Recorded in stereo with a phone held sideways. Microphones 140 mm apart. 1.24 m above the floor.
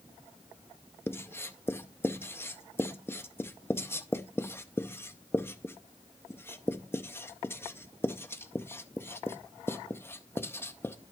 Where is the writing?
15° left (ahead or behind), 0.5 m.